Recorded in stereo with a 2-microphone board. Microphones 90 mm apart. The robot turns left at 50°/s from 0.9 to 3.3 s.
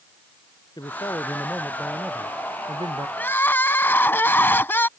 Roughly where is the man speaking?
Ahead left.